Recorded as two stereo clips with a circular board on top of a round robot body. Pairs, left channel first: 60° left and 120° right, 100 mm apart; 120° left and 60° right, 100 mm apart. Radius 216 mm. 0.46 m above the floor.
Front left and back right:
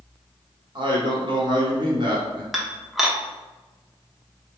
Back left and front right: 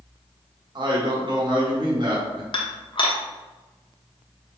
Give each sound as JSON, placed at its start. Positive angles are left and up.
{"t": 0.8, "sound": "a man speaking", "azimuth_deg": -90, "distance_m": 1.5}
{"t": 2.5, "sound": "dishes clattering", "azimuth_deg": 150, "distance_m": 0.9}